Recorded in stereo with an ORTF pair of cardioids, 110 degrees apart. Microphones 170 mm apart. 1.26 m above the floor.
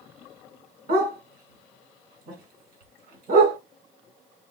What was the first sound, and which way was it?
A dog barking, 70° right.